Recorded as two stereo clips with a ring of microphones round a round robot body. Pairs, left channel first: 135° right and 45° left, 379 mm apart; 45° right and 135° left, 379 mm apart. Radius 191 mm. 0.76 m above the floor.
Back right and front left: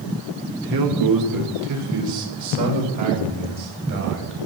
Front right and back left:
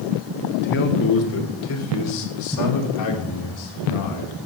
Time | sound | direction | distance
0.5 | a man speaking | 20° left | 2.5 m